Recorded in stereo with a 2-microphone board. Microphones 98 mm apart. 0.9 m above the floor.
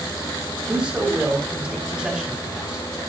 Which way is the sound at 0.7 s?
10° right (ahead or behind).